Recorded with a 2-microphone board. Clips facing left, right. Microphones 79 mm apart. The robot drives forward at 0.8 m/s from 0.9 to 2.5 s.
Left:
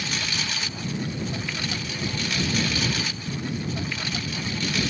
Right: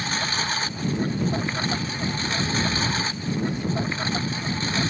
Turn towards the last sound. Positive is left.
turn(degrees=-35)  # may be behind; listen again after turning